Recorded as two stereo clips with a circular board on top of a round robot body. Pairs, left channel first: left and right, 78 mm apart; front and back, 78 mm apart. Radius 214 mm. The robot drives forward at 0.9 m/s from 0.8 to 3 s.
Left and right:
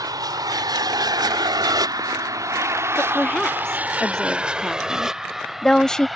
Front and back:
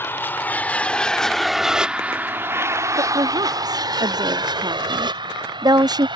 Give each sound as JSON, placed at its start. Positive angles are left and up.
{"t": 0.0, "sound": "an aircraft", "azimuth_deg": -60}
{"t": 3.0, "sound": "a woman speaking", "azimuth_deg": 170}